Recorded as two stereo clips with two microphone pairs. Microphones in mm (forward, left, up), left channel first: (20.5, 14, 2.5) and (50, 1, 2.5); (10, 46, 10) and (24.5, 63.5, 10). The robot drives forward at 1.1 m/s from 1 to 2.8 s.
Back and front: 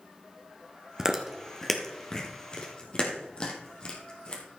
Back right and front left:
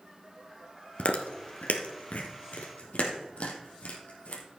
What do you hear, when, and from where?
1.0 s chewing: 95° right, 1.5 m; by 4.4 s 145° right, 2.5 m